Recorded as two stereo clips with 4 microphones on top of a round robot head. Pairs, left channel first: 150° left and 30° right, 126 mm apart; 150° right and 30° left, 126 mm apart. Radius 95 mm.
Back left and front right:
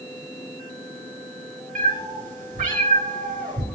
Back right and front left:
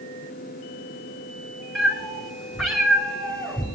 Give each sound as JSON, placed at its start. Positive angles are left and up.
{"t": 1.8, "sound": "a cat meowing", "azimuth_deg": -60, "distance_m": 3.0}